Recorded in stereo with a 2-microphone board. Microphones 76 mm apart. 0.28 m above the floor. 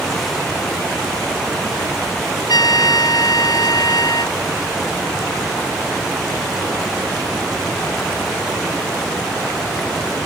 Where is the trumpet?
65° left (ahead or behind).